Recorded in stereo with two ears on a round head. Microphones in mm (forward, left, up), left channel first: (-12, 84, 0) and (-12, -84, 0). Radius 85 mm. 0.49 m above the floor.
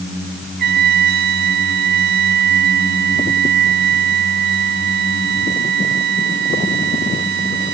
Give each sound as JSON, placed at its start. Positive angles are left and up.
{"t": 0.6, "sound": "a trumpet", "side_deg": -60}